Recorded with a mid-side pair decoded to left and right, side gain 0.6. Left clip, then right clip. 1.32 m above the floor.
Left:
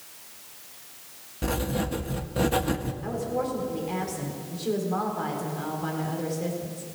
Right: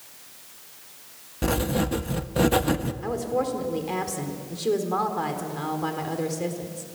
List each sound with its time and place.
1.4 s writing: 25° right, 1.1 m
3.0 s a woman speaking: 40° right, 4 m